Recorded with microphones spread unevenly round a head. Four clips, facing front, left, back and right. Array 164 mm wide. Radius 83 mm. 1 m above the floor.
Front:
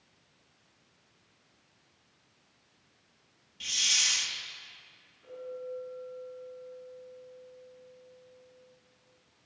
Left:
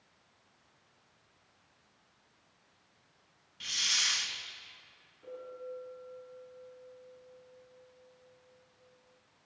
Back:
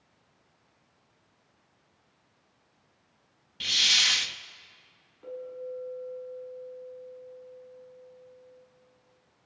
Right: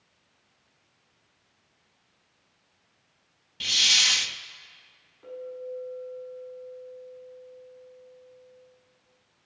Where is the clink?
155° right, 5.5 m.